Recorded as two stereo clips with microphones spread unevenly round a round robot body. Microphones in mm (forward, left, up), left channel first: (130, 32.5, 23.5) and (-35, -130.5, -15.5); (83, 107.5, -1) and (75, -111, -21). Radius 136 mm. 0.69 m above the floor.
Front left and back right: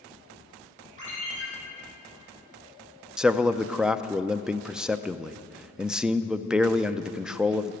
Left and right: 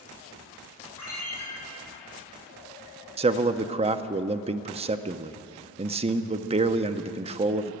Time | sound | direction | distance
1.0 | a ringtone | 160° left | 6.5 m
3.2 | a man speaking | 65° right | 0.5 m